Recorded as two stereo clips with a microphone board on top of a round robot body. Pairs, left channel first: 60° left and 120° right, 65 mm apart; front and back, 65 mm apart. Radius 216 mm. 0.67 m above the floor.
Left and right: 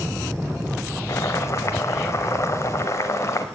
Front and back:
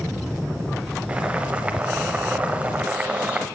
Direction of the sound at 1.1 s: 110° left.